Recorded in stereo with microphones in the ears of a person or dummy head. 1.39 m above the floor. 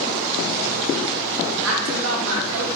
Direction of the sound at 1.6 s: 75° right (ahead or behind).